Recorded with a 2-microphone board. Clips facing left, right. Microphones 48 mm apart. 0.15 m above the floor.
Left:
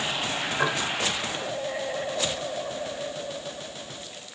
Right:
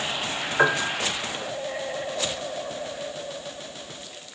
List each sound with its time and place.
0.6 s a piano: 45° right (ahead or behind), 1.6 m